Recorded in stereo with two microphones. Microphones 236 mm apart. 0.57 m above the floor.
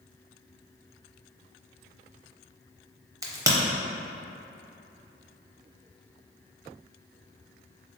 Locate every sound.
3.2 s a crack: 15° right (ahead or behind), 0.5 m